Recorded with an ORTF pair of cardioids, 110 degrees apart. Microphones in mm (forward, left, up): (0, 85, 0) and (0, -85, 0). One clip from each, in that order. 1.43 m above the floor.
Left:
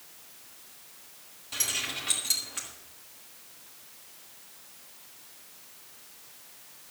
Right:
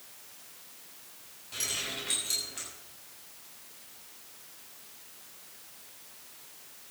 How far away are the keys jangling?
About 7.5 m.